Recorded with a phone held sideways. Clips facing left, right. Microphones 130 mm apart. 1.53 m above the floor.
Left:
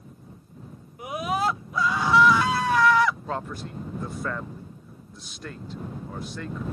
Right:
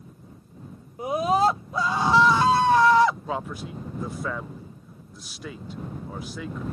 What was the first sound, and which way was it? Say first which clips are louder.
A scream: right 5 dB; 30° right (ahead or behind).